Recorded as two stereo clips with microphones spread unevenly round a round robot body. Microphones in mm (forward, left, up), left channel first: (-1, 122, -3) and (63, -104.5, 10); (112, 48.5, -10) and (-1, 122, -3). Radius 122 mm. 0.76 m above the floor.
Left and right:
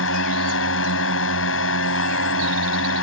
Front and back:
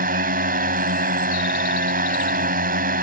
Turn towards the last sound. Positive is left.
turn(degrees=145)